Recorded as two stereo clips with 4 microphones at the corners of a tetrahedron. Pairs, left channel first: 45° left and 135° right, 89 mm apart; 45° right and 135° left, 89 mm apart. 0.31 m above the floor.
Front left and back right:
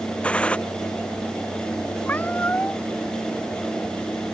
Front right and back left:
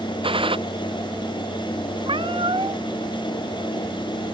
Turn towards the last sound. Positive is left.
turn(degrees=115)